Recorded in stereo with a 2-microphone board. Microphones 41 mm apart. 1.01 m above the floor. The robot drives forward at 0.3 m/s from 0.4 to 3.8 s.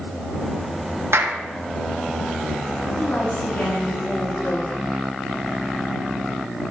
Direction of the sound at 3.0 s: 50° left (ahead or behind).